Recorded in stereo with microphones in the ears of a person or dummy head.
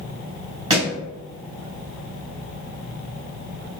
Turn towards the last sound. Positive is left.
turn(degrees=-25)  # may be behind; listen again after turning